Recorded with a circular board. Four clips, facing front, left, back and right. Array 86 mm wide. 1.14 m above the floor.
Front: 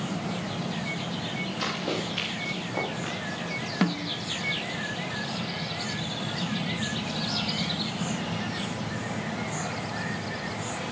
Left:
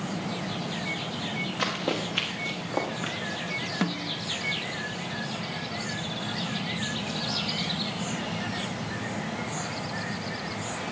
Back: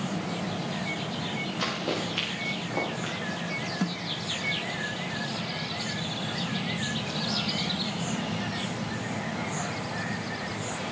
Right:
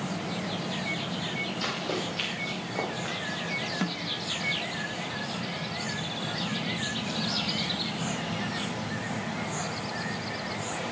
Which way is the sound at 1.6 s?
95° left.